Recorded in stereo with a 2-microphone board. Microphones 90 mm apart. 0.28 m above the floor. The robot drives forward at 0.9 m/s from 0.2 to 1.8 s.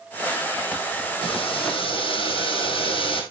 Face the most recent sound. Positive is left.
turn(degrees=75)  # may be behind; listen again after turning